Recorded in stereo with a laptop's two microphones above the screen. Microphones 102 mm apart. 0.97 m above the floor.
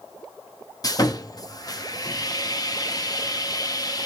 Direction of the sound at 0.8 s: 35° left (ahead or behind).